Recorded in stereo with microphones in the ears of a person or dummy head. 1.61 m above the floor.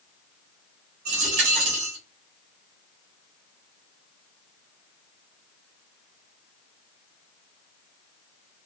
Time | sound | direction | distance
1.1 | a dropped coin | 45° right (ahead or behind) | 1.3 m